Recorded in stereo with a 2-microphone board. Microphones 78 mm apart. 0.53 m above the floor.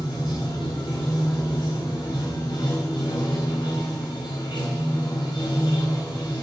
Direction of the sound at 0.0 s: 70° left (ahead or behind).